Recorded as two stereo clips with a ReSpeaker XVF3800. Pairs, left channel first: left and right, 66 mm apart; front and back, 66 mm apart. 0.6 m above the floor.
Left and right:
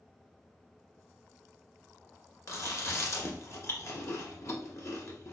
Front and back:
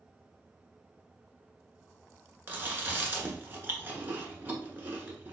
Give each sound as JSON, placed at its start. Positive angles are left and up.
{"t": 2.5, "sound": "chewing", "azimuth_deg": 125, "distance_m": 1.1}